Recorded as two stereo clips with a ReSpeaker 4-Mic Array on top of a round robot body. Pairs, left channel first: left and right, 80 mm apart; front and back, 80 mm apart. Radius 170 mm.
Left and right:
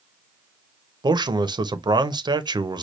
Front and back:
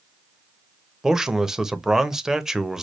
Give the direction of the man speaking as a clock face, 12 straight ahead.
3 o'clock.